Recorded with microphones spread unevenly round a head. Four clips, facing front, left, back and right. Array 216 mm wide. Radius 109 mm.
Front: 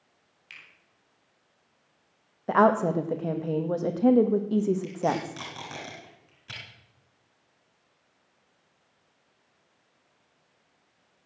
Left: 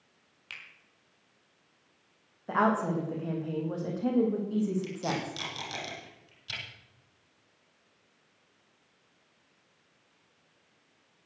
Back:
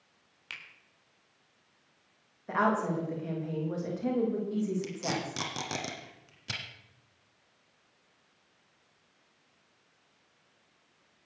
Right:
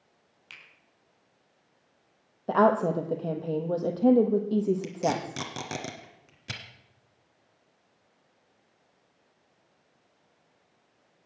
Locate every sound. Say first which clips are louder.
0.5 s a finger snap: left 3 dB, back 4 dB; 155° left, 4 m
2.5 s a woman speaking: right 5 dB, front 7 dB; 45° right, 1.5 m
4.8 s tape being pulled: right 5 dB, front 7 dB; 115° right, 1.6 m